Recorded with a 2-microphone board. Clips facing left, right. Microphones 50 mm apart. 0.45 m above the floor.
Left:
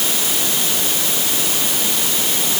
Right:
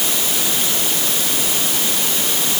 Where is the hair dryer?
I don't hear a hair dryer.